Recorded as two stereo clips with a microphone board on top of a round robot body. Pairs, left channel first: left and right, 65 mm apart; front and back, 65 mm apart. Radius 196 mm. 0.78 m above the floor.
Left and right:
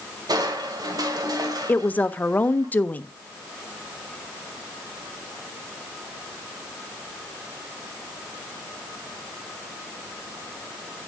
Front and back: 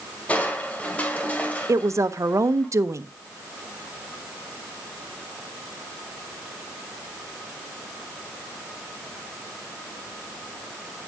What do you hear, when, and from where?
0.3 s crushing: 70° right, 2 m
1.7 s a woman speaking: 150° left, 1.0 m